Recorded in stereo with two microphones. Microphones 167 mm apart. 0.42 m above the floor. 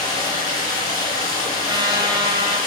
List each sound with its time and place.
0.0 s running water: 25° left (ahead or behind), 6.5 m
1.6 s a trumpet: 30° right (ahead or behind), 1.7 m